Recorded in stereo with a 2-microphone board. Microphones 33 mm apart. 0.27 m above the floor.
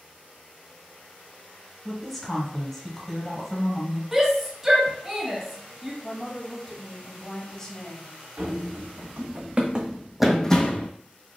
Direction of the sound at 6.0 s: 15° left (ahead or behind).